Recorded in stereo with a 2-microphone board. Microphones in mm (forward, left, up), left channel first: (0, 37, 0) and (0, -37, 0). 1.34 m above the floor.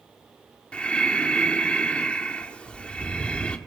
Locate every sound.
0.7 s breathing: 15° left (ahead or behind), 1.9 m